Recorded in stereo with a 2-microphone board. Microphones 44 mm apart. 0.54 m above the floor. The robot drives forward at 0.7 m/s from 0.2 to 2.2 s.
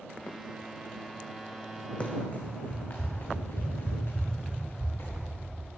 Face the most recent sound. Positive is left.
turn(degrees=70)  # may be behind; listen again after turning